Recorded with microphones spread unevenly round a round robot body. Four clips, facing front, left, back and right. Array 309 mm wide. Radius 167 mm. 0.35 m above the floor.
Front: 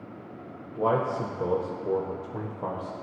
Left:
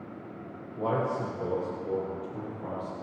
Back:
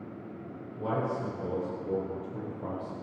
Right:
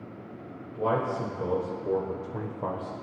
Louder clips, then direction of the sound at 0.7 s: Right 2 dB, front 6 dB; 5° left.